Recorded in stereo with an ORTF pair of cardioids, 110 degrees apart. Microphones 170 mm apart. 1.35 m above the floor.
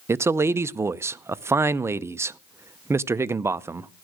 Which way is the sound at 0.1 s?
15° right.